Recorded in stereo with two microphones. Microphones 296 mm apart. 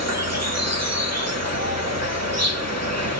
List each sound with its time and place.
0.0 s an insect: 60° right (ahead or behind), 1.3 m